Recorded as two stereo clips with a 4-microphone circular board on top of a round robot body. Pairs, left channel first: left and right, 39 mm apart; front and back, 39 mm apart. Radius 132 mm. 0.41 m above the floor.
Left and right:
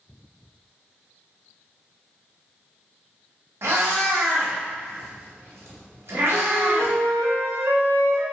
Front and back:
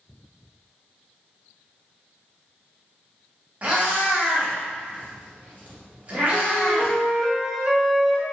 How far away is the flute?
About 0.6 m.